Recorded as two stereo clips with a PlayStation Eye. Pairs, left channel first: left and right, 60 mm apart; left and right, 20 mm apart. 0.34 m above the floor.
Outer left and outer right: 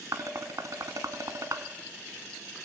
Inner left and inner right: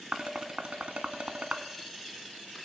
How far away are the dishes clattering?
About 2 m.